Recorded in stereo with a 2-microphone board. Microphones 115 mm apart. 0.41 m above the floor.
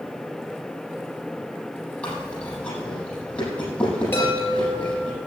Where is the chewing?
10° left (ahead or behind), 6 m.